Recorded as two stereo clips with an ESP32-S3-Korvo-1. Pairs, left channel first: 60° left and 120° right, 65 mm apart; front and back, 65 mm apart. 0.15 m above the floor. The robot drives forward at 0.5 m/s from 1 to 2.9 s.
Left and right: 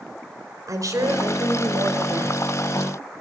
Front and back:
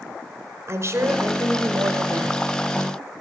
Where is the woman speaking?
140° right, 4.5 m; by 2.4 s 145° right, 5 m.